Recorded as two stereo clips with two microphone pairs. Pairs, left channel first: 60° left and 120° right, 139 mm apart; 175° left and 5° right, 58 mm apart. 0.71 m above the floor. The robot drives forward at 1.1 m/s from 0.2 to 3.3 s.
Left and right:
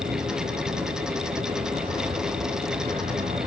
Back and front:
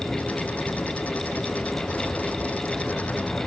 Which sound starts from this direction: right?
A vehicle, at 0.0 s.